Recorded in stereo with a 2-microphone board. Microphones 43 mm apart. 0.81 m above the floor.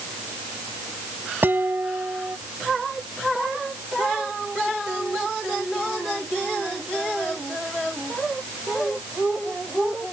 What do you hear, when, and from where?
1.4 s dishes clattering: 55° right (ahead or behind)